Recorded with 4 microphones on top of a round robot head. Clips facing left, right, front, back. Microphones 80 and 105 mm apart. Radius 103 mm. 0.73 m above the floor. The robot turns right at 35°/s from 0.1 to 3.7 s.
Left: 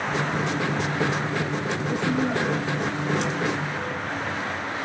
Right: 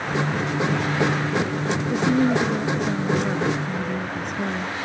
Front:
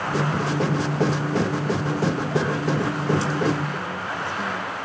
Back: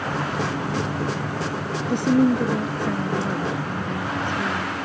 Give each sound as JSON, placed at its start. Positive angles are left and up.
{"t": 1.9, "sound": "a woman speaking", "azimuth_deg": -165}